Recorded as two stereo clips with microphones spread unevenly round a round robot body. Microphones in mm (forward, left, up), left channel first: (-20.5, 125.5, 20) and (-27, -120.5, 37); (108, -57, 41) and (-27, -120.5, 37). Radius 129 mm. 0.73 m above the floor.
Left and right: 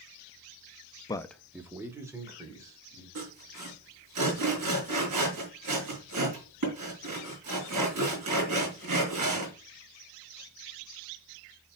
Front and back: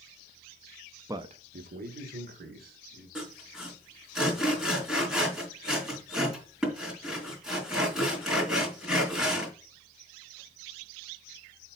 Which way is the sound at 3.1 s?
70° right.